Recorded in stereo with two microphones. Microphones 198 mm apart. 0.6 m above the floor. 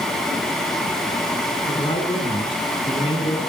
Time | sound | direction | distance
1.7 | a man speaking | 30° left (ahead or behind) | 6.5 m